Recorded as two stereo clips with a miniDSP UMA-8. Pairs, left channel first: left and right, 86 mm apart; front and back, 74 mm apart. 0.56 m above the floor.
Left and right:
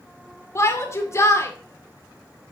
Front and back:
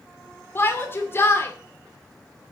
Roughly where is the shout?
Ahead left.